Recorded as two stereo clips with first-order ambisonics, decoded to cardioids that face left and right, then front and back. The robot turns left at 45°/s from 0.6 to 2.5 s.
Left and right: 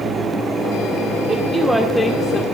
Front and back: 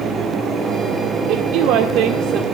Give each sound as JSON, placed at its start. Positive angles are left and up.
{"t": 1.3, "sound": "a woman speaking", "azimuth_deg": -160, "distance_m": 1.8}